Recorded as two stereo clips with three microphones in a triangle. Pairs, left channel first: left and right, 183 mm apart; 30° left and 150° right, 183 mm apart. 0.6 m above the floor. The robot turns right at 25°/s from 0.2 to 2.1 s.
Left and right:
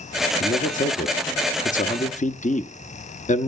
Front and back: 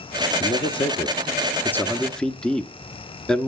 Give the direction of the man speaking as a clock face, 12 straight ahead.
10 o'clock.